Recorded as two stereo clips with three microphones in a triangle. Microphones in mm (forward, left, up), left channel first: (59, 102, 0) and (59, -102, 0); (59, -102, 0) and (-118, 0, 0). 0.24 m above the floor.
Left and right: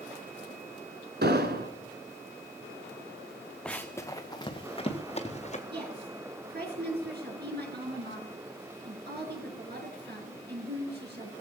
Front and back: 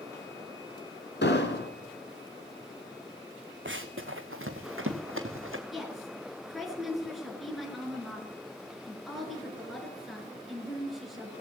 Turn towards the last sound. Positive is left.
turn(degrees=-120)